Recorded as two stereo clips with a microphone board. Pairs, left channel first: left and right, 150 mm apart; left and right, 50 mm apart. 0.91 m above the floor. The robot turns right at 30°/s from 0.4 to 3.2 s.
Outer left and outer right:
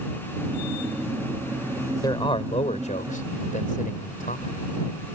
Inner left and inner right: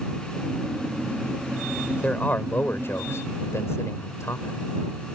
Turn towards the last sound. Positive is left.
turn(degrees=65)